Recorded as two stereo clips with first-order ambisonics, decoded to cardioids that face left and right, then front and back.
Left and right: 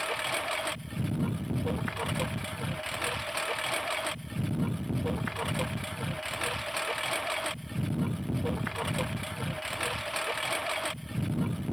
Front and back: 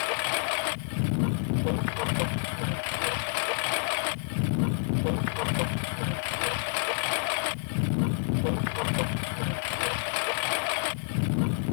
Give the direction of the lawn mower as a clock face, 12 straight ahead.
12 o'clock.